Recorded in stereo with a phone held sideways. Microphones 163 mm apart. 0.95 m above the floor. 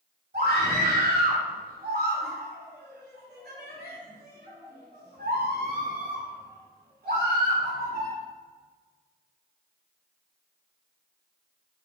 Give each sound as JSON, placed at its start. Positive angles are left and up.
{"t": 0.3, "sound": "a scream", "side_deg": -80, "distance_m": 3.0}